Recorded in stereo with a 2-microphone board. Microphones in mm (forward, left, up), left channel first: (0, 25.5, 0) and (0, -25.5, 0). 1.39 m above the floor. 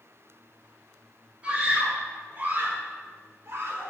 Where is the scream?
25° right (ahead or behind), 5.5 m; by 3.9 s 60° right (ahead or behind), 5 m.